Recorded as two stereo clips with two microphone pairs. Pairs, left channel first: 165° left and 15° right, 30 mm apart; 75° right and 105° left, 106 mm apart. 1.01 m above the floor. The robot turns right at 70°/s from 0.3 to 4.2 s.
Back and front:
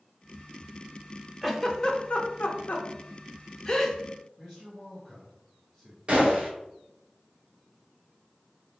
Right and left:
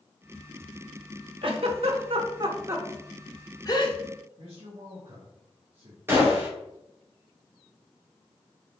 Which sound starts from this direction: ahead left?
A gunshot, at 6.1 s.